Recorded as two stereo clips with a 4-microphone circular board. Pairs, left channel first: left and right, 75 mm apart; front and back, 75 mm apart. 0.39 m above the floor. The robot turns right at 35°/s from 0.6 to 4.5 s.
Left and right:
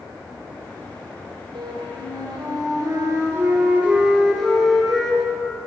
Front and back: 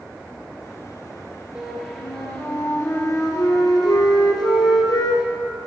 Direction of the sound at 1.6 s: 105° right.